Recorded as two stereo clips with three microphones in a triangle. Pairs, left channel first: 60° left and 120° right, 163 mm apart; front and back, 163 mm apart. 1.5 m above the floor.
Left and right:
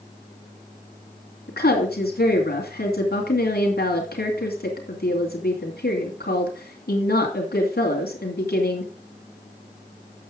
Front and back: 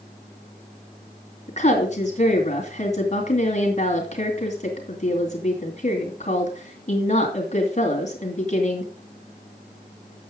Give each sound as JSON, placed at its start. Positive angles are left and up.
{"t": 1.5, "sound": "a woman speaking", "azimuth_deg": 45, "distance_m": 2.5}